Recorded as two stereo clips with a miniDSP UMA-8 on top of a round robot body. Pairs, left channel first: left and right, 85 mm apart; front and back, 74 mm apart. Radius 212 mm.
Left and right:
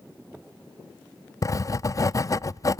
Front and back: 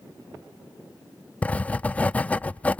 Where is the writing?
65° left, 0.5 m.